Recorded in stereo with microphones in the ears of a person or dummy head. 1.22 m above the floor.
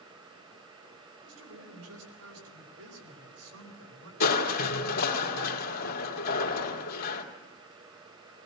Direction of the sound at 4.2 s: 55° left (ahead or behind).